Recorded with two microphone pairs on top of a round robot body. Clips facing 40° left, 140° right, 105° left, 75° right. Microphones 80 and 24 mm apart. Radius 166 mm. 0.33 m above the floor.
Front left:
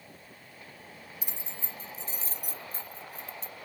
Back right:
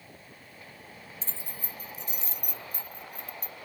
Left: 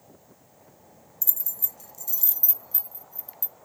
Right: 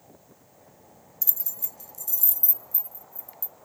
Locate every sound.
1.2 s keys jangling: 20° right; by 3.5 s 90° left